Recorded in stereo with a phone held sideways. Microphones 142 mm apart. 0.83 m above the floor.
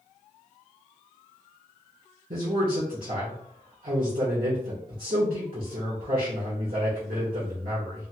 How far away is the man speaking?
About 1.8 m.